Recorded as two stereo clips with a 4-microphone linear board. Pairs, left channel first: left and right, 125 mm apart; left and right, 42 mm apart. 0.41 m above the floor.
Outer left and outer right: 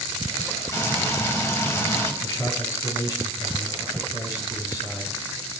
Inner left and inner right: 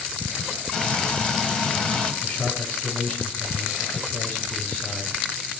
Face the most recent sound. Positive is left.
turn(degrees=30)  # may be behind; listen again after turning